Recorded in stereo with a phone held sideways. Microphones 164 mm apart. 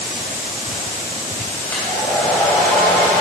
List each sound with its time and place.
1.7 s a hair dryer: 10° left (ahead or behind), 4 m